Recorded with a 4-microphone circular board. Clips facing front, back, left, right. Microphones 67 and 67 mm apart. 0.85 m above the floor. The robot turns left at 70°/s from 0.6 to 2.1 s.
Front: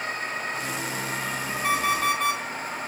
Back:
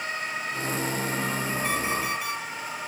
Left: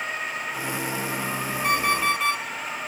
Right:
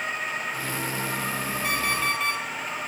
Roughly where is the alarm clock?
Ahead left.